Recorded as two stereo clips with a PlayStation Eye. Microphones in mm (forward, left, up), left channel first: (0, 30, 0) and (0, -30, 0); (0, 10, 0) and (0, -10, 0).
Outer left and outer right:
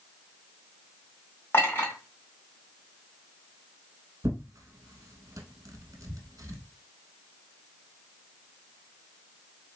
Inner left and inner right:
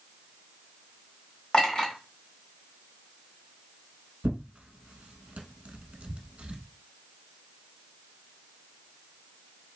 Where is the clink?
35° left (ahead or behind), 1.2 m.